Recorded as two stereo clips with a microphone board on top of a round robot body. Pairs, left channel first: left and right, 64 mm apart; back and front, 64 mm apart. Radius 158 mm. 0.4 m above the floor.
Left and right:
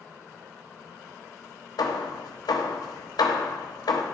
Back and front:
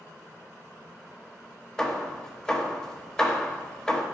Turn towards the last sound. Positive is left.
turn(degrees=100)